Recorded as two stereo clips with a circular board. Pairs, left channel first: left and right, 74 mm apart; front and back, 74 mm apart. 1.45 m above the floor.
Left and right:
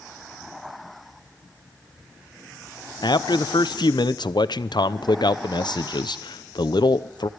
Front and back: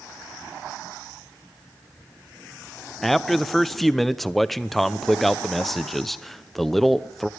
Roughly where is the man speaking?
Left.